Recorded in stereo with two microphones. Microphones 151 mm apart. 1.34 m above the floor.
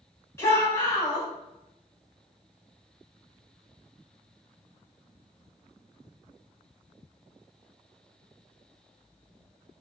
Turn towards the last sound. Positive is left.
turn(degrees=20)  # may be behind; listen again after turning